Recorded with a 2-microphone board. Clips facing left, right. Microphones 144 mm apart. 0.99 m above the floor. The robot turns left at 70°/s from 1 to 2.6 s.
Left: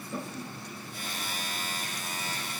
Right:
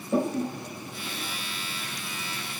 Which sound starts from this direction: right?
A toilet flushing, at 0.1 s.